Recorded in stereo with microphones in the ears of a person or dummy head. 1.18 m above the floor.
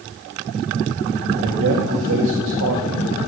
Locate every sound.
1.4 s a man speaking: 70° right (ahead or behind), 1.9 m